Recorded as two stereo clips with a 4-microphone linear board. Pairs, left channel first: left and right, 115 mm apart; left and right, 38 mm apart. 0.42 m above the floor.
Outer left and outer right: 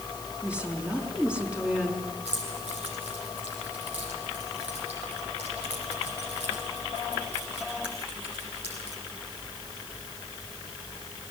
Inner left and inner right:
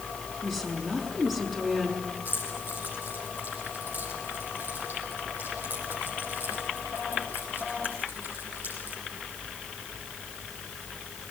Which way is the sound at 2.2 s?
60° right (ahead or behind).